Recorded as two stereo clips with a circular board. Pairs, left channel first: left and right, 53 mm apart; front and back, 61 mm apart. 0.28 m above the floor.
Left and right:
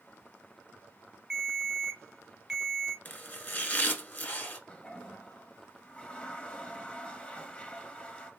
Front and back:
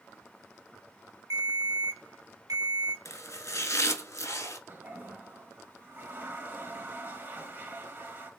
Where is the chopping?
35° left, 0.6 m.